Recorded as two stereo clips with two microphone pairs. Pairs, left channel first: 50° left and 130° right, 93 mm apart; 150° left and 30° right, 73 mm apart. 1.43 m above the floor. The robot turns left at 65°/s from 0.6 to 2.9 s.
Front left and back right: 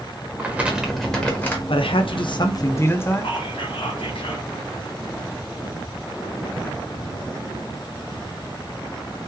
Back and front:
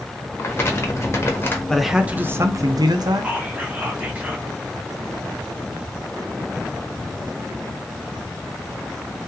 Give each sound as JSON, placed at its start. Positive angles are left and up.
{"t": 0.4, "sound": "crumpling", "azimuth_deg": 170, "distance_m": 0.9}
{"t": 1.7, "sound": "a man speaking", "azimuth_deg": 65, "distance_m": 0.5}
{"t": 3.2, "sound": "whispering", "azimuth_deg": 35, "distance_m": 1.0}